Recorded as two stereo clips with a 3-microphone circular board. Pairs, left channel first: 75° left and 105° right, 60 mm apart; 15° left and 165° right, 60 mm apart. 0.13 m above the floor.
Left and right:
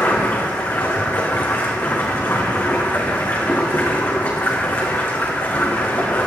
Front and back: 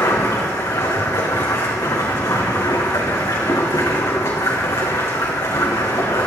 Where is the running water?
20° left, 3 m.